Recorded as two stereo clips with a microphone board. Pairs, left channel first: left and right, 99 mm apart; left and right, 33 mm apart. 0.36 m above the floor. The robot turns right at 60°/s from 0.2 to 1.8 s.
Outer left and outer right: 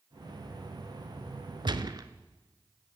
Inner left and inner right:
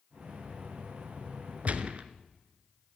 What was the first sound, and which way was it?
A gunshot, 55° right (ahead or behind).